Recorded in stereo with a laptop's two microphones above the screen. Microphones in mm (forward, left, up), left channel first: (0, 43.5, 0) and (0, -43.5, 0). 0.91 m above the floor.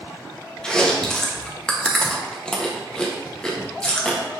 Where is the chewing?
10° left (ahead or behind), 0.7 m.